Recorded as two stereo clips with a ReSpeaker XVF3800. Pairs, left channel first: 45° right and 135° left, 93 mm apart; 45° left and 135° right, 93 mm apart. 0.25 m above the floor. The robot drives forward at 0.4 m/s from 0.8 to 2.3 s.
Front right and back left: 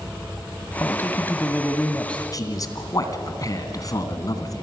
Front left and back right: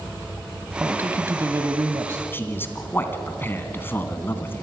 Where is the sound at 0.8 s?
80° right, 1.3 m; by 2.2 s 120° right, 1.3 m.